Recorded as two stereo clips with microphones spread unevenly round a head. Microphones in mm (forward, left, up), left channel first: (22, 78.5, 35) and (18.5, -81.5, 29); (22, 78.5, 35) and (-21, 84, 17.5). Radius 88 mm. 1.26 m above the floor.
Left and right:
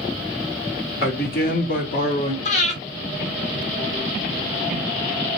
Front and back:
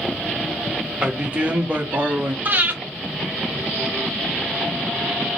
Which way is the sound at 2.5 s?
110° left.